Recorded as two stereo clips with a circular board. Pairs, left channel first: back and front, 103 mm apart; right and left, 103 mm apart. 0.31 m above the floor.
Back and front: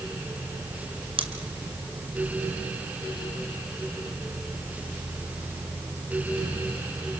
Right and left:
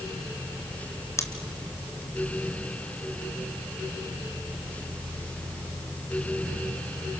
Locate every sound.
1.2 s scissors: 25° right, 2 m